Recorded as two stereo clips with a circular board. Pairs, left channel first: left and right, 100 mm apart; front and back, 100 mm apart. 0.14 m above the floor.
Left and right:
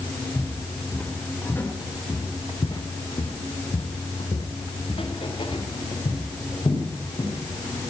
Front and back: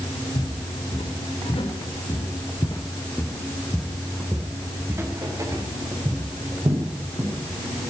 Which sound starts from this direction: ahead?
Footsteps, at 0.3 s.